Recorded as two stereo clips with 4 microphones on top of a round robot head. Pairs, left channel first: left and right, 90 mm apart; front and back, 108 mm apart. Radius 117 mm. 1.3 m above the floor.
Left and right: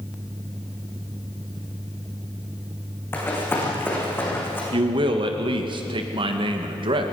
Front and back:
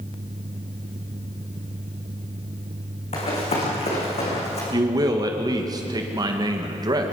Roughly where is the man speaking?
Behind right.